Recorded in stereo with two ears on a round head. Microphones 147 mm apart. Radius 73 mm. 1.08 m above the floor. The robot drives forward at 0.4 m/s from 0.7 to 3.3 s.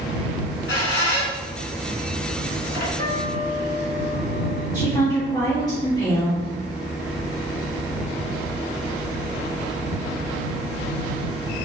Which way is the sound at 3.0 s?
35° left (ahead or behind).